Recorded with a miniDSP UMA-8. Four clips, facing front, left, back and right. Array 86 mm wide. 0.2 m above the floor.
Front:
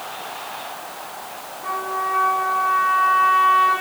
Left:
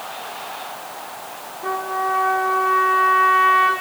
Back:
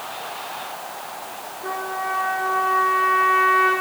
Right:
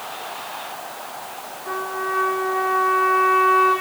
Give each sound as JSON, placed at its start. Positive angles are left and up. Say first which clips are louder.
{"t": 1.6, "sound": "a trumpet", "louder": "left 4 dB, front 3 dB", "azimuth_deg": 95, "distance_m": 7.0}